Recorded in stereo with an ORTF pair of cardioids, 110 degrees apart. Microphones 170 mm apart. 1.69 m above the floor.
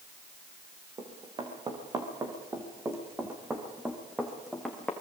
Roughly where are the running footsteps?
Ahead right.